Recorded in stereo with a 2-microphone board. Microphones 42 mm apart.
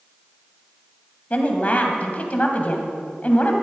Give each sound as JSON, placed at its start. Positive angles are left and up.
{"t": 1.3, "sound": "a woman speaking", "side_deg": 35, "distance_m": 2.0}